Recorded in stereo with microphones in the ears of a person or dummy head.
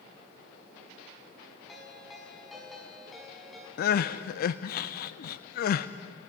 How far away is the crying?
About 0.6 m.